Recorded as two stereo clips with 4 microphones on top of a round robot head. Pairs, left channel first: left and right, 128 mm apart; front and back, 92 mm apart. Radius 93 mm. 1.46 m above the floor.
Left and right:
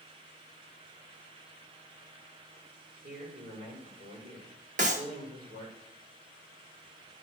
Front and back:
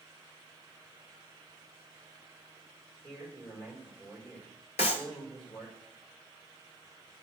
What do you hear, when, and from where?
3.0 s a man speaking: 85° right, 5.5 m
4.8 s a clap: 45° right, 0.7 m